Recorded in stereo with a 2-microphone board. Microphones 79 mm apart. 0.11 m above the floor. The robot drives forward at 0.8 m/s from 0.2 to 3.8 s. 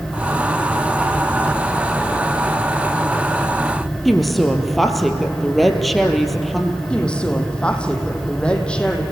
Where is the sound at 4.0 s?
Centre (ahead or behind), 2.5 m.